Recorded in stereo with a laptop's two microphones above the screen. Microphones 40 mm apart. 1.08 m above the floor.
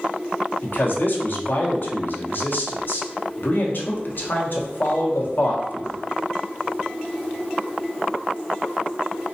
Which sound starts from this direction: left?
A man speaking, at 0.6 s.